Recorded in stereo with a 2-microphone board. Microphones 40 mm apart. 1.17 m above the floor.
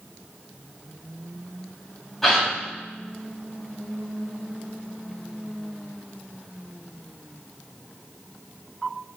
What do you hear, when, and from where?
2.2 s a gasp: 5° left (ahead or behind), 4 m